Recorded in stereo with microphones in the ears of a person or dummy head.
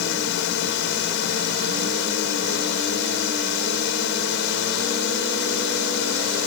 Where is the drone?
55° left (ahead or behind).